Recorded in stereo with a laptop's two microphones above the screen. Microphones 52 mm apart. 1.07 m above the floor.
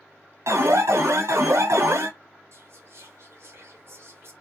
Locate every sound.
0.5 s an alarm: 70° right (ahead or behind), 0.8 m
2.5 s whispering: 55° right (ahead or behind), 0.9 m